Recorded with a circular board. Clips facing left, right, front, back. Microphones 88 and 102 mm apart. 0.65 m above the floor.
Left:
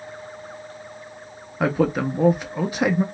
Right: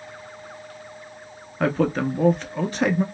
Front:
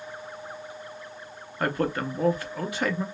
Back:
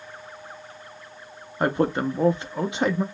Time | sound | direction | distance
1.6 | a man speaking | 155° left | 0.5 m